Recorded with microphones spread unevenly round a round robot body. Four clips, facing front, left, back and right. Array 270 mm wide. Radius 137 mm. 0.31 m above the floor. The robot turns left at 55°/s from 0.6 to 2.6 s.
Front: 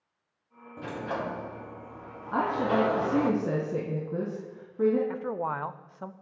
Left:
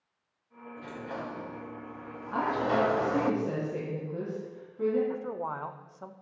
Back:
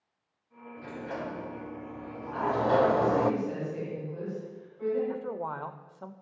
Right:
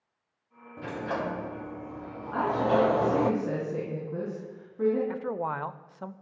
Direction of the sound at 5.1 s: 55° right.